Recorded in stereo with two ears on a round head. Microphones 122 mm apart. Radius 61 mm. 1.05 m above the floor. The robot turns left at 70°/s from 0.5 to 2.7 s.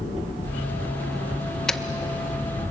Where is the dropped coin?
5° left (ahead or behind), 0.7 m; by 1.8 s centre (ahead or behind), 0.7 m.